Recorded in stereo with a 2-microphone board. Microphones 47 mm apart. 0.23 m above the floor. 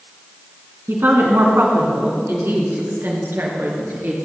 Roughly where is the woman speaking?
Right.